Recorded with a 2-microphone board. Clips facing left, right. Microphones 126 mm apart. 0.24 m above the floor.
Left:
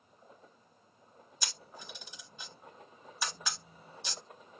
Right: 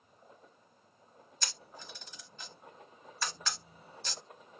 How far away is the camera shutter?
About 0.9 m.